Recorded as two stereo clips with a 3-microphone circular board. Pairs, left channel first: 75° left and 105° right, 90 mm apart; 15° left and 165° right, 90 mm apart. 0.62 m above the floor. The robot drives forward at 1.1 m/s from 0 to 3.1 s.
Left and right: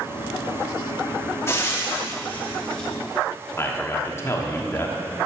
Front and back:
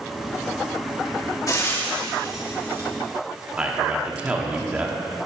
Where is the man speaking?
125° left, 1.2 m.